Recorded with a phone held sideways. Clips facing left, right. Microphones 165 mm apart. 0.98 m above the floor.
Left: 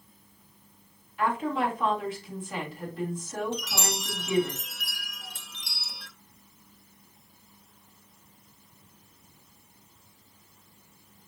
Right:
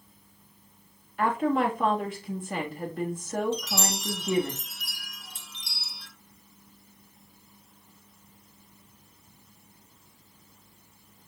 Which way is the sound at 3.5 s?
65° left (ahead or behind).